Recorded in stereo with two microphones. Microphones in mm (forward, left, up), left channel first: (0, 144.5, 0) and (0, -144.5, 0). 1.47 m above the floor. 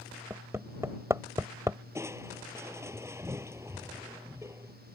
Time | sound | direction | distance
0.3 | hammering | 10° right (ahead or behind) | ?
1.9 | crushing | 10° right (ahead or behind) | ?